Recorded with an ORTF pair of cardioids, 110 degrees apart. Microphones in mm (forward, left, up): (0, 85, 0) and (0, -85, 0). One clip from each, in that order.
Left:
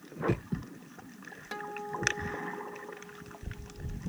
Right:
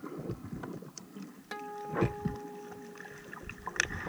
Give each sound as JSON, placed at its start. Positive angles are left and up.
{"t": 1.5, "sound": "a guitar", "azimuth_deg": 5}